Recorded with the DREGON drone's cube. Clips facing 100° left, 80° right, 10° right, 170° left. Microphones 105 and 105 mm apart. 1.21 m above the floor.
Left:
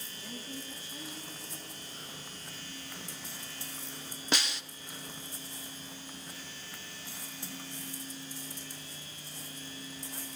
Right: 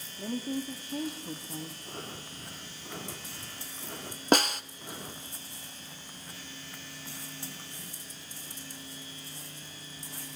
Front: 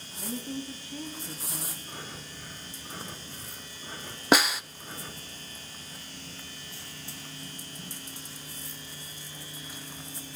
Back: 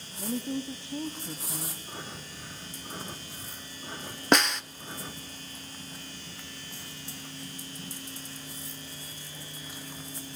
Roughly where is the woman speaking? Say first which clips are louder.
Right 11 dB, back 4 dB; behind right.